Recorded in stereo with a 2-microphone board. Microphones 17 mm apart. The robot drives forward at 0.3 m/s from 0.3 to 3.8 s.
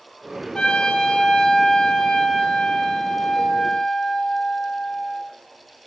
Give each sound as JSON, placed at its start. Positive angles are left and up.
{"t": 0.6, "sound": "a trumpet", "side_deg": 55, "distance_m": 3.0}